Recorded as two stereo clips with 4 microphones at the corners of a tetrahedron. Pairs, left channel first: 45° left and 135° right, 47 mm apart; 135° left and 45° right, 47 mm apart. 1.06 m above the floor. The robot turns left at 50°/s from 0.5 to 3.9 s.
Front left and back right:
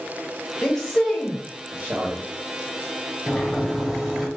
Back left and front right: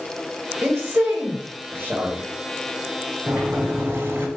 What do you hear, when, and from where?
0.6 s a man speaking: 25° right, 1.4 m; by 2.2 s 105° right, 1.4 m
3.3 s a sliding door: 10° right, 0.9 m; by 4.3 s 45° right, 0.9 m